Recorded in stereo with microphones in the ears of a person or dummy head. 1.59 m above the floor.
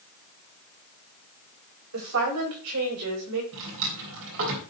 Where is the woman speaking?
90° right, 7 m; by 3.4 s 80° right, 5.5 m.